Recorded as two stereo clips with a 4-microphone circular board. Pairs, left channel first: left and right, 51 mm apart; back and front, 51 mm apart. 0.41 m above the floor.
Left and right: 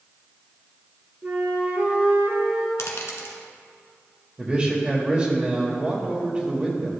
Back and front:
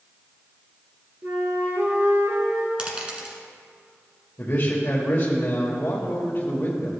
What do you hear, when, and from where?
1.2 s a flute: 35° right, 1.8 m
2.8 s a dropped coin: 70° left, 1.5 m
4.4 s a man speaking: 150° right, 1.4 m